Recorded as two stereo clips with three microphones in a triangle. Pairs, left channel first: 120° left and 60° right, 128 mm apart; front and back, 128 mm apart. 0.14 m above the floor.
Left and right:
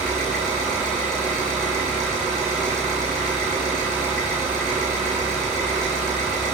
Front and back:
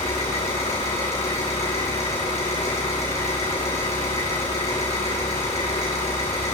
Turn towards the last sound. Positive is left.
turn(degrees=35)